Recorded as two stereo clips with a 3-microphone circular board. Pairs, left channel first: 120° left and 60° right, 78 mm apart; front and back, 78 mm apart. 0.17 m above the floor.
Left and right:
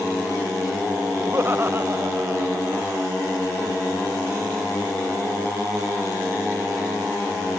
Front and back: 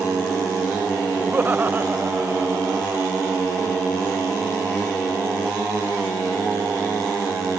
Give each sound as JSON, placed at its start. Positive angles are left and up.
{"t": 1.2, "sound": "laughter", "azimuth_deg": -115}